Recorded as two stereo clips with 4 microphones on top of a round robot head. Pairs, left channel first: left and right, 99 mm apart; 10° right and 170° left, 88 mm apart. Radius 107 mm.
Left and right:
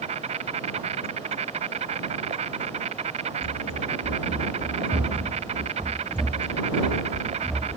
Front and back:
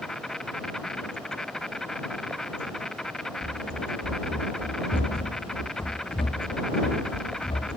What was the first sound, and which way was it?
An insect, 100° right.